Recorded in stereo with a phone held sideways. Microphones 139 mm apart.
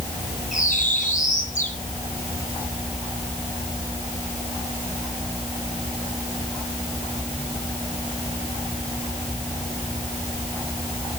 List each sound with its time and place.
0.5 s a bird: 65° left (ahead or behind), 9 m